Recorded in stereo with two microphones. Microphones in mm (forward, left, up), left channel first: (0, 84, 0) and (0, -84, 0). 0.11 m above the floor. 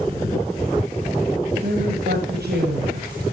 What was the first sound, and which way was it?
A woman speaking, 75° right (ahead or behind).